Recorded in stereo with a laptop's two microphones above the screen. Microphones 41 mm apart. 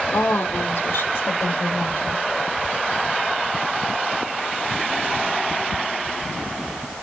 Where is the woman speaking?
70° left (ahead or behind), 2.5 m; by 2.2 s 75° left (ahead or behind), 4.5 m.